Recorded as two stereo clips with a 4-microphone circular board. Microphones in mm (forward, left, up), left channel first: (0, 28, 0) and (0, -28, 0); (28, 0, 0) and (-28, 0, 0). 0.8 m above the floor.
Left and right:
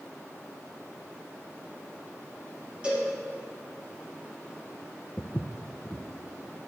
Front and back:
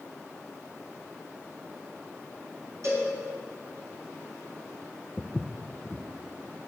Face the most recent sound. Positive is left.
turn(degrees=50)